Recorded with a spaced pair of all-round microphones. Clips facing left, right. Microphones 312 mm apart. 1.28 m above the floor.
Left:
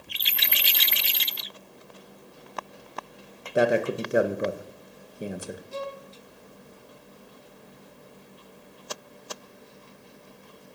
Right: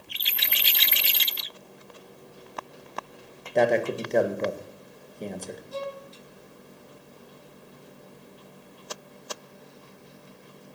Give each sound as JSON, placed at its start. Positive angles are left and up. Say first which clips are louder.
{"t": 3.5, "sound": "a man speaking", "louder": "even", "side_deg": 10, "distance_m": 1.6}
{"t": 5.7, "sound": "a violin", "louder": "right 1 dB", "side_deg": 30, "distance_m": 4.5}